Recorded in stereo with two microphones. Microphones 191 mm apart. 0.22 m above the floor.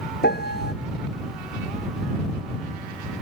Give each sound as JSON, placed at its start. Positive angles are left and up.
{"t": 0.2, "sound": "a piano", "side_deg": 70}